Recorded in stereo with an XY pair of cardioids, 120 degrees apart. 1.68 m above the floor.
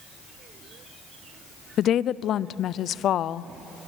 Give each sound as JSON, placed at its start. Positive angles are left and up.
{"t": 1.8, "sound": "a woman speaking", "azimuth_deg": 55, "distance_m": 0.5}